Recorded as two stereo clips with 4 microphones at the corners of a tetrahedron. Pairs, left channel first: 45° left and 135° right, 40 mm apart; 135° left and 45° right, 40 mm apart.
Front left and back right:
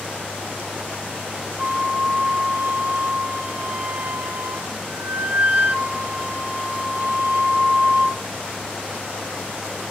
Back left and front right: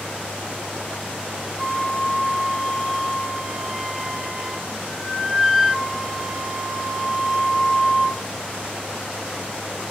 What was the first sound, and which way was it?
A flute, 120° right.